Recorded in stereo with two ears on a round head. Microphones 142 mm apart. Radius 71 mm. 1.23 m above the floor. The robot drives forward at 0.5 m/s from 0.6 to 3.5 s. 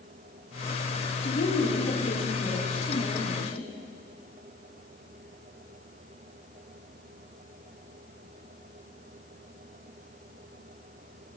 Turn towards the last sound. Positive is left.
turn(degrees=45)  # may be behind; listen again after turning